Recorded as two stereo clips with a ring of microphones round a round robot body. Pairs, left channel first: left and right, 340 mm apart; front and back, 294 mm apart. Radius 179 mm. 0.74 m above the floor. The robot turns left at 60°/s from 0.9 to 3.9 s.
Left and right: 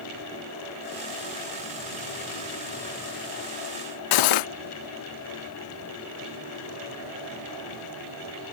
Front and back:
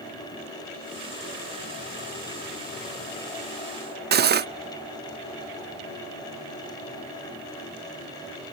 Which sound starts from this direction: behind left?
Cutlery clinking, at 4.1 s.